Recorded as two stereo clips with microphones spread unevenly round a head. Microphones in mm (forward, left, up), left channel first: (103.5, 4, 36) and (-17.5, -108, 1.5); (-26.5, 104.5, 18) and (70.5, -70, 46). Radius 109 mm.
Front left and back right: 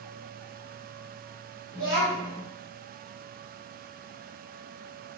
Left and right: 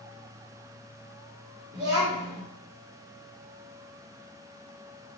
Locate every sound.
1.7 s a child speaking: 105° right, 2.5 m